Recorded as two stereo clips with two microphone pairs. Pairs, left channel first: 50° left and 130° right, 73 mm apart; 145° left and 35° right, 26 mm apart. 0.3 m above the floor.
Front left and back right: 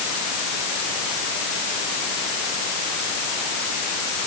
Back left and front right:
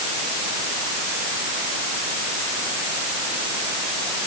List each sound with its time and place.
Only background noise.